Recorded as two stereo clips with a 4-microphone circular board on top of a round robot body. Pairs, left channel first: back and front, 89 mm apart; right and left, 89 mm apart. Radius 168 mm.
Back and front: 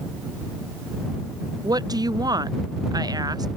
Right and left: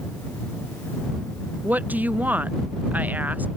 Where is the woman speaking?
25° left.